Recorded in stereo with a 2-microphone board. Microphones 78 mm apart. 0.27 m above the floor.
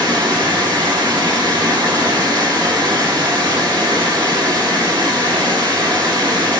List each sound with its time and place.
0.0 s running water: 80° right, 4.5 m